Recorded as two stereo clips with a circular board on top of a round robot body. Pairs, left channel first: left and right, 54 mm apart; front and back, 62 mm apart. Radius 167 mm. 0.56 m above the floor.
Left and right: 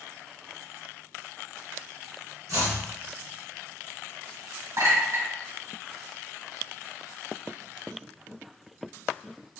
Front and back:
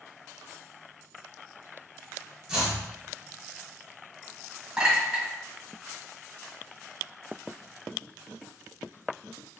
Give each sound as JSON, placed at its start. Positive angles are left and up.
{"t": 2.5, "sound": "chopping", "azimuth_deg": -95, "distance_m": 1.9}
{"t": 4.8, "sound": "a clink", "azimuth_deg": -100, "distance_m": 1.8}